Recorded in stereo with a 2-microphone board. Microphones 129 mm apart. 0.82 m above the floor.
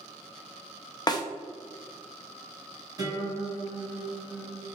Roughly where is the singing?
No singing in this recording.